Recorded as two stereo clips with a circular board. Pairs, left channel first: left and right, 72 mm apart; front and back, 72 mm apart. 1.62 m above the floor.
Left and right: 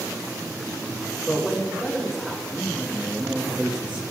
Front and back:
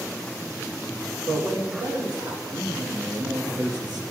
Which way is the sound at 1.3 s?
175° right.